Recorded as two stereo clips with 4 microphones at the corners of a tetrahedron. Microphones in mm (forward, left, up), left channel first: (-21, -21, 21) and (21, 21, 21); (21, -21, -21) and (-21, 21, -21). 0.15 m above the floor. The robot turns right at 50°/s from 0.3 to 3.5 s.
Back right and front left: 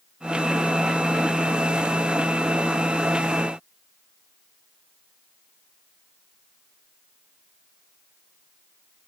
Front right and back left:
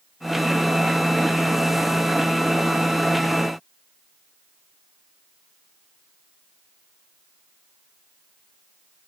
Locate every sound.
Only background noise.